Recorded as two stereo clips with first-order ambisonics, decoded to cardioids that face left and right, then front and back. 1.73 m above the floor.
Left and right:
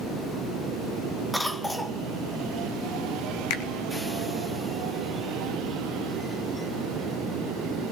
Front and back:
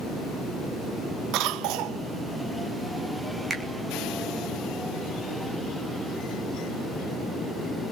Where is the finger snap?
105° left, 3 m.